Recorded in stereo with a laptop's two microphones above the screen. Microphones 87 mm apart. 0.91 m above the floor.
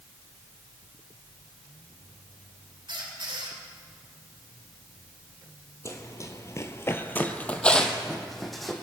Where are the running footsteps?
40° left (ahead or behind), 1.4 m; by 8.8 s centre (ahead or behind), 2.5 m.